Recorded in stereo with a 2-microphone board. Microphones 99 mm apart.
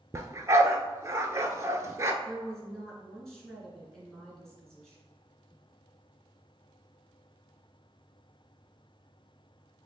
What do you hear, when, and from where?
0.1 s a dog barking: 30° right (ahead or behind), 0.5 m
2.2 s a woman speaking: 5° left (ahead or behind), 1.9 m